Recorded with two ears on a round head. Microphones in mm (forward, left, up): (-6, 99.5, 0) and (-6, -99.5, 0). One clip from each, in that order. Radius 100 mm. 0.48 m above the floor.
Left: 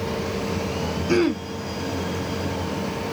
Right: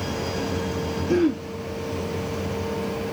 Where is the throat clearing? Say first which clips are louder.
Left 1 dB; 50° left (ahead or behind), 0.8 m.